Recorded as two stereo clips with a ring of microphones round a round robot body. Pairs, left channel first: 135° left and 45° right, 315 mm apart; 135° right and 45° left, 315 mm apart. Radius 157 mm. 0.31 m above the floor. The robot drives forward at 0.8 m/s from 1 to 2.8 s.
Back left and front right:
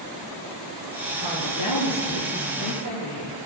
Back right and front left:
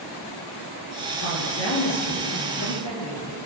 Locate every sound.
1.2 s a woman speaking: 175° left, 5 m